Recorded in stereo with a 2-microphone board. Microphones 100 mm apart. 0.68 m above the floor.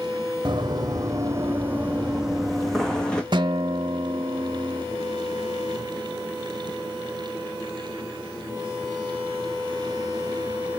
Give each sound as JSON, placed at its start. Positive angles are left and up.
{"t": 0.5, "sound": "running footsteps", "side_deg": -55, "distance_m": 1.5}
{"t": 3.3, "sound": "a guitar", "side_deg": -50, "distance_m": 0.8}